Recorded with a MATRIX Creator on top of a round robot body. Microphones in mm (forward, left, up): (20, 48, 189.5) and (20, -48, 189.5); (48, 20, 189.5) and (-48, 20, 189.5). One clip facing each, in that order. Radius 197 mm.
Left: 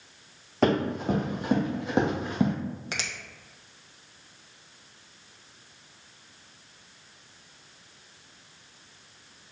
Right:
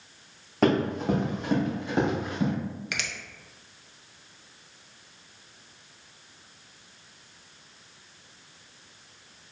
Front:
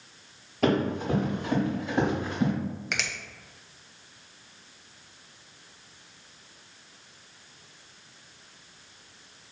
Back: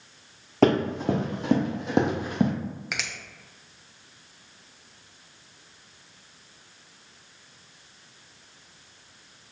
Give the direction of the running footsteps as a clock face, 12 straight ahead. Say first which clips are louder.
Right 1 dB, back 4 dB; 6 o'clock.